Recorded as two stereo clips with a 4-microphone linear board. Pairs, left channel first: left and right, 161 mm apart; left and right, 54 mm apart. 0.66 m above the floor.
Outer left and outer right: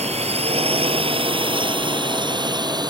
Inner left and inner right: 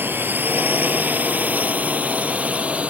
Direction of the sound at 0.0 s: 40° right (ahead or behind).